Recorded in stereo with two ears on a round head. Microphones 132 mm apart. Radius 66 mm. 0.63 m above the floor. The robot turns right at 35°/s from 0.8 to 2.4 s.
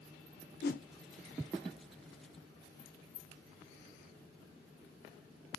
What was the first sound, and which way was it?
A whoosh, 65° left (ahead or behind).